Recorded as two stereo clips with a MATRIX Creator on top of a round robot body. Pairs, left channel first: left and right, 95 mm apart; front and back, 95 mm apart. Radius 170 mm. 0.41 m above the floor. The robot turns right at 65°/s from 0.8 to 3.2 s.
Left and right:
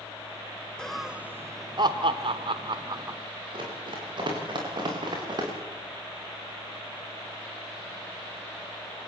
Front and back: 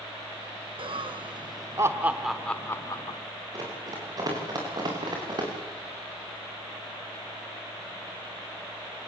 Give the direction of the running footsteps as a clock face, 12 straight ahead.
4 o'clock.